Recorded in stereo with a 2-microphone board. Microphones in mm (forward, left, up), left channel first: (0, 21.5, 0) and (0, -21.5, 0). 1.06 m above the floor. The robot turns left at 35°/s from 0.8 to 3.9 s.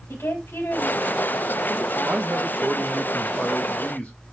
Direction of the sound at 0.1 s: 90° left.